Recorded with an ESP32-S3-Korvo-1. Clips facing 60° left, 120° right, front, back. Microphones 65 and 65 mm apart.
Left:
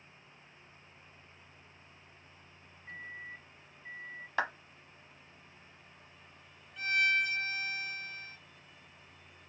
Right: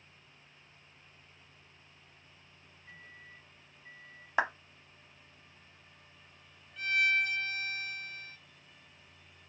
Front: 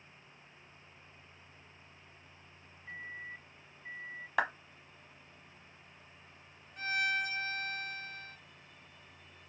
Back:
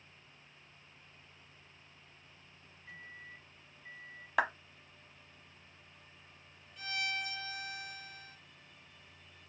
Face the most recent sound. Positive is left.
turn(degrees=-25)